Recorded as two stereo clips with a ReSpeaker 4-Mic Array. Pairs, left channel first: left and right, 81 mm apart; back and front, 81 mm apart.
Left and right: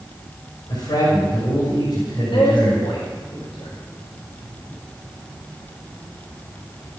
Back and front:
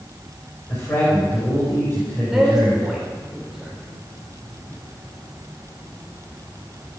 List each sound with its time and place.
0.7 s a man speaking: 120° left, 5.5 m
2.3 s a woman speaking: 85° left, 4.5 m